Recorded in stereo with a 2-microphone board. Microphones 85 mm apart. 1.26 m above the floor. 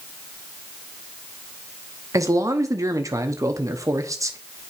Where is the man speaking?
40° right (ahead or behind), 0.8 m.